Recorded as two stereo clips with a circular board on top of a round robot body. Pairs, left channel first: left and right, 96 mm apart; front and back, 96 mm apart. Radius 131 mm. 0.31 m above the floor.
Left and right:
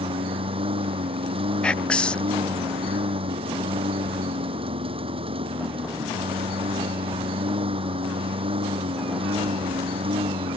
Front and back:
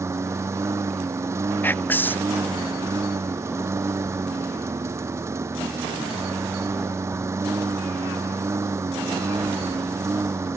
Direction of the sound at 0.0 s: 115° right.